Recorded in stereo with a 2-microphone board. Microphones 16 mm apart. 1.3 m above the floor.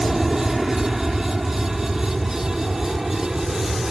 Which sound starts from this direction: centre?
An aircraft, at 0.0 s.